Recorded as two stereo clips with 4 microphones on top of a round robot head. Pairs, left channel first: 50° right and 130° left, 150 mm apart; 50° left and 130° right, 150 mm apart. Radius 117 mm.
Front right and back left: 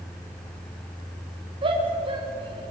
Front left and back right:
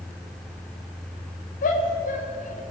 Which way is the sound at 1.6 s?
75° left.